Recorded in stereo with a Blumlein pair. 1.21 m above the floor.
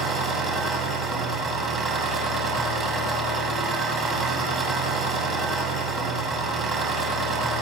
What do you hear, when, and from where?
0.0 s an engine running: 20° right, 6.5 m